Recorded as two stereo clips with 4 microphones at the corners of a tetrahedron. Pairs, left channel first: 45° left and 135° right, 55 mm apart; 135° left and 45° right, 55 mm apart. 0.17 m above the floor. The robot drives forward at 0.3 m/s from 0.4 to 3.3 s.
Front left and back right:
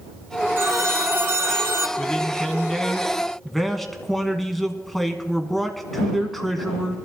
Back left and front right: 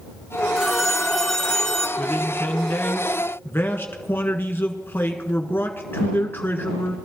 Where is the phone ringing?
140° right, 1.1 m; by 1.9 s 150° right, 1.4 m.